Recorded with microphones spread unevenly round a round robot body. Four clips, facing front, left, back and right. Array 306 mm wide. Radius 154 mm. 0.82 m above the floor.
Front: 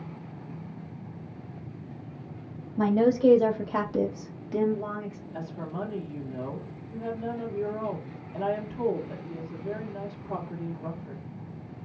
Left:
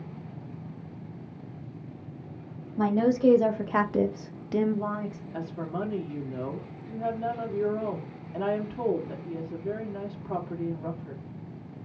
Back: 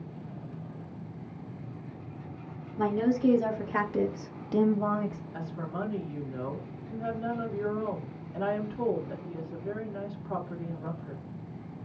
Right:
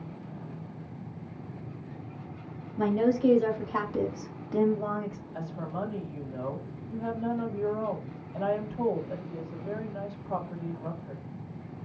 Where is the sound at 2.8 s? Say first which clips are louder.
Left 1 dB, front 4 dB; 35° left, 1.2 m; by 5.2 s 170° right, 0.7 m.